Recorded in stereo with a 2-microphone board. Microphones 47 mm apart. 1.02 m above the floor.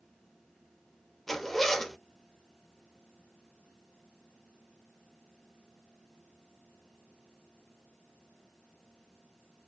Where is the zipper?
5° left (ahead or behind), 0.5 m.